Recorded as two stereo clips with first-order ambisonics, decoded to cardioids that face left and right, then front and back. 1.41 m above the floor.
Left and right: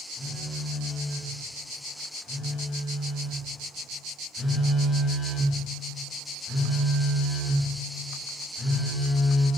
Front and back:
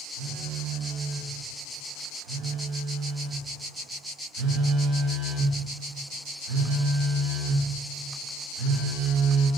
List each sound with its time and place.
0.2 s a phone buzzing: 175° left, 0.6 m